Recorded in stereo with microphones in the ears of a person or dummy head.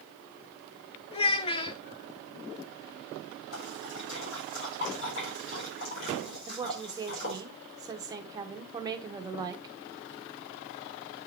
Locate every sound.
1.1 s a child speaking: 30° left (ahead or behind), 0.7 m
3.5 s a splash: 70° left (ahead or behind), 4 m
6.5 s a woman speaking: 20° right (ahead or behind), 0.9 m